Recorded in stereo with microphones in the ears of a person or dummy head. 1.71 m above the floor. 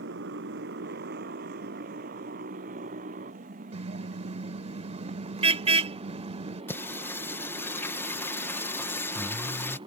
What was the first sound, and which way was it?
A motorcycle, 65° right (ahead or behind).